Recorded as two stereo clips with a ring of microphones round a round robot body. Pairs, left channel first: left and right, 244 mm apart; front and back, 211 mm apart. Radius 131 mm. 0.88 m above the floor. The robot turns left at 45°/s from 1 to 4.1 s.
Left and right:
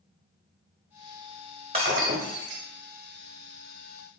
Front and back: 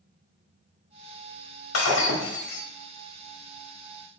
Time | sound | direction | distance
1.7 | breaking glass | 20° right | 1.0 m